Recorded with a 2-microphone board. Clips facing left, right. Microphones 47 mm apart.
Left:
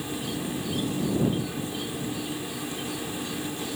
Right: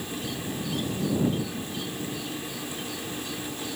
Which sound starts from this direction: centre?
An insect, at 0.0 s.